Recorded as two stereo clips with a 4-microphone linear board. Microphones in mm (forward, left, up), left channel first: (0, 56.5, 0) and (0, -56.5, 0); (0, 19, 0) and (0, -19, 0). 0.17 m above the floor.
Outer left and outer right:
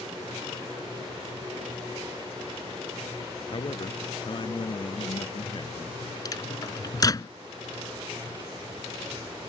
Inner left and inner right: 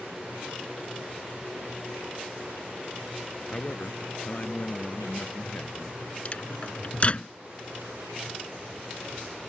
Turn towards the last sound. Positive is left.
turn(degrees=35)  # may be behind; listen again after turning